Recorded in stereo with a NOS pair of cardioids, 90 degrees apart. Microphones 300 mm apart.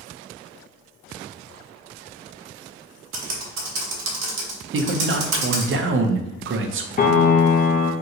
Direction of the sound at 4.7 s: 45° right.